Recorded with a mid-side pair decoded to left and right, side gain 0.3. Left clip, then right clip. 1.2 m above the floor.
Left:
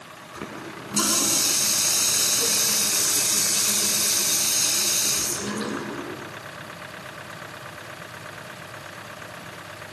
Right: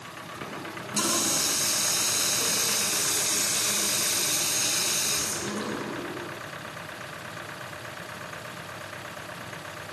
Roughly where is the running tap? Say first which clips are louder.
Left 2 dB; ahead left.